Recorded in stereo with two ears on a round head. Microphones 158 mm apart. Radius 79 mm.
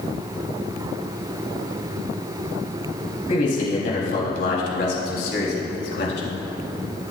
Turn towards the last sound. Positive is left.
turn(degrees=80)